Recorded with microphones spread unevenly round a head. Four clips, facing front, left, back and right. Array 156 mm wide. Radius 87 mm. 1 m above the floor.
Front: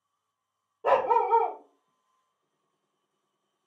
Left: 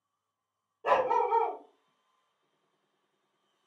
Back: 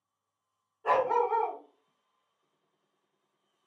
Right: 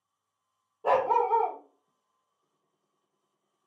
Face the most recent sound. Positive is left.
turn(degrees=-20)